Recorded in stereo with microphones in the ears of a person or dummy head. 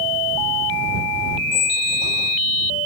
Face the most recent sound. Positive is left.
turn(degrees=70)  # may be behind; listen again after turning